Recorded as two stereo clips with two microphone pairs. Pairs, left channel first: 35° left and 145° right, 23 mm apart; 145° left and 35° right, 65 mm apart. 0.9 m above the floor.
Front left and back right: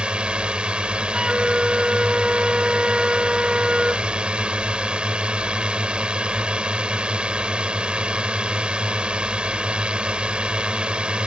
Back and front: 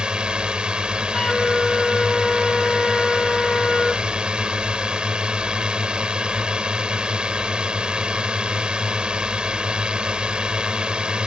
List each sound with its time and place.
0.0 s a drone: 110° right
1.1 s a flute: 140° right